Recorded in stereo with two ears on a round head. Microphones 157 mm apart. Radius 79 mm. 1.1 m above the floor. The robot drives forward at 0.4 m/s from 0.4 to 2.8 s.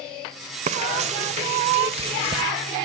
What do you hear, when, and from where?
0.7 s frying: 40° right (ahead or behind), 1.0 m; by 2.4 s 35° right (ahead or behind), 1.2 m